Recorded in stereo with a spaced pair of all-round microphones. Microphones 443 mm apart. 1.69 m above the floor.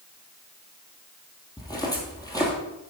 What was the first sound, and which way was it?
Footsteps, 10° left (ahead or behind).